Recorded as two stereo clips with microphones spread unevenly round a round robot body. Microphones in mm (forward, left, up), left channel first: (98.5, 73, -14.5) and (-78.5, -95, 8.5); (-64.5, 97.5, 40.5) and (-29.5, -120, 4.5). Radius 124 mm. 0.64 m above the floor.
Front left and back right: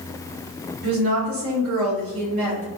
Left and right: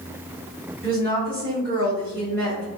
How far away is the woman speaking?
About 1.9 m.